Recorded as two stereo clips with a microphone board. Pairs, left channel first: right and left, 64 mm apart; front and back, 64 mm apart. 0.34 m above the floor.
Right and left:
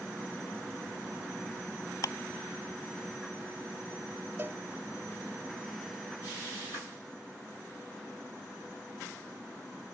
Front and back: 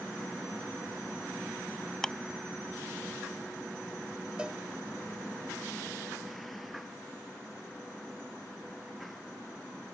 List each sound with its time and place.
2.0 s ticking: 85° right
4.4 s a cowbell: 115° left